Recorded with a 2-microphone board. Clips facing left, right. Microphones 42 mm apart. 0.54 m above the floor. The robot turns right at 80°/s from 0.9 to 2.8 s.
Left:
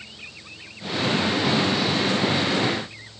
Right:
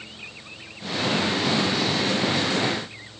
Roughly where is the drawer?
I don't hear a drawer.